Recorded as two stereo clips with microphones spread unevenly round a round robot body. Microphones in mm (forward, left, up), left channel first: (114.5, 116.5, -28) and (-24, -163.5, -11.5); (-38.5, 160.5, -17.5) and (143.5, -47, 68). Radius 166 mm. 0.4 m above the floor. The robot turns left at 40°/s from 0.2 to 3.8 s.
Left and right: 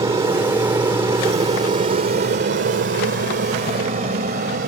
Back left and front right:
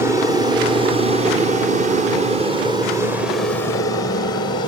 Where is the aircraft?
165° right; by 4.7 s 175° right.